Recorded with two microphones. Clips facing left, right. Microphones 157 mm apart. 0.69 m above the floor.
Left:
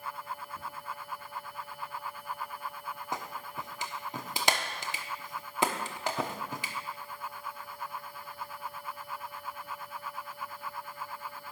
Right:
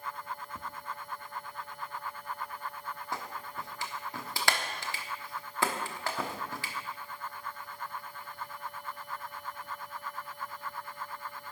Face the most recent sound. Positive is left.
turn(degrees=20)  # may be behind; listen again after turning